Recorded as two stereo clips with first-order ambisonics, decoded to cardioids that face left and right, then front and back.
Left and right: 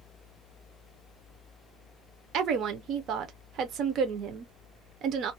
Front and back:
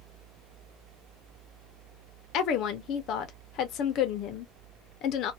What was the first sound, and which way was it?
A woman speaking, 40° right.